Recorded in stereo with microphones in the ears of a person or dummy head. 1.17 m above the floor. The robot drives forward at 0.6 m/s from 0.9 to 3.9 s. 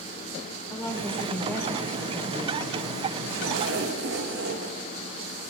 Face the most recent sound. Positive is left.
turn(degrees=-60)  # may be behind; listen again after turning